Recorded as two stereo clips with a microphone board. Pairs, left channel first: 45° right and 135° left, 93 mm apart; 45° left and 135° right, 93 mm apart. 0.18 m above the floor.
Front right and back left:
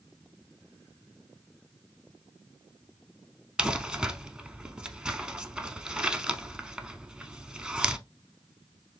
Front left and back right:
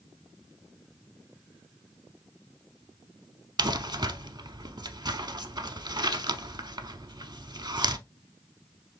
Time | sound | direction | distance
3.6 | crumpling | 145° right | 0.5 m